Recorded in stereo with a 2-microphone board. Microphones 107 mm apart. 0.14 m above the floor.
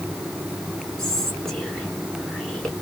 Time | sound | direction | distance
1.0 | whispering | 5° left (ahead or behind) | 1.5 m